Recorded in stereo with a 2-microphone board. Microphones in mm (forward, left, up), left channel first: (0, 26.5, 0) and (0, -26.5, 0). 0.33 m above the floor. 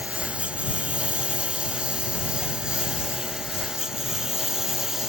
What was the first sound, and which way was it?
A lawn mower, 25° right (ahead or behind).